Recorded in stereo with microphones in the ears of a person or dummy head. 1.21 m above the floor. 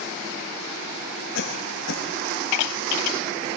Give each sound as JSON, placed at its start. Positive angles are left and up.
{"t": 1.4, "sound": "a cough", "side_deg": 80, "distance_m": 5.5}